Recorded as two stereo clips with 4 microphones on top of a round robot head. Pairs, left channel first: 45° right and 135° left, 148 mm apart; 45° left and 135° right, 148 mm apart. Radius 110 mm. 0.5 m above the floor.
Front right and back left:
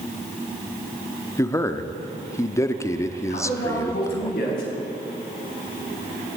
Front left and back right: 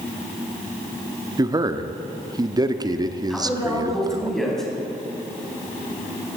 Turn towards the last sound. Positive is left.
turn(degrees=-45)